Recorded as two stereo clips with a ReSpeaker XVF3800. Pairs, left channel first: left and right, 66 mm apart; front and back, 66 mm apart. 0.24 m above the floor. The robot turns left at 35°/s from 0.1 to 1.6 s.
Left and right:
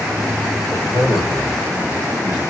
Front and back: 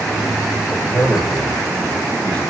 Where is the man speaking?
110° left, 4.5 m; by 2.4 s 75° left, 4.5 m.